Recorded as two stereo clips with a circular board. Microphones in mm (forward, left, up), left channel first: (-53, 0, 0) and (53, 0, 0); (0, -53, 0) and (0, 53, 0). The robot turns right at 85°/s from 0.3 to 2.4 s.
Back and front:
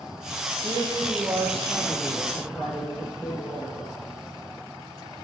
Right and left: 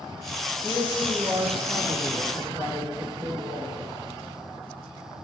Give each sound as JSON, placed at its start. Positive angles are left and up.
{"t": 0.6, "sound": "a man speaking", "azimuth_deg": -5, "distance_m": 3.5}